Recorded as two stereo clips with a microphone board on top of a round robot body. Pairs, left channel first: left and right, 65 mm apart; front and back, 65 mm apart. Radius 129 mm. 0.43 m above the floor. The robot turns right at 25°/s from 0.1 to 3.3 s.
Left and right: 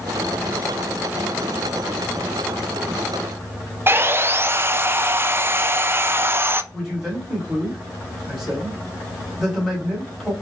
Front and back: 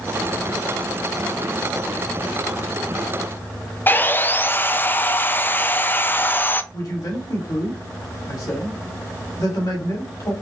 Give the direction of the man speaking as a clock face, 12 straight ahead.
12 o'clock.